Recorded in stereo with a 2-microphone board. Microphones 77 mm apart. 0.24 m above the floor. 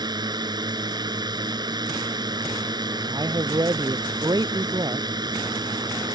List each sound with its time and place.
0.0 s a drone: 70° right (ahead or behind)
3.1 s a man speaking: 65° right (ahead or behind)